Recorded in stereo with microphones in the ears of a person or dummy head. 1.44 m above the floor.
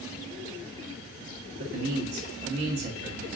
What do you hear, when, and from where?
1.6 s a man speaking: 45° right (ahead or behind), 1.0 m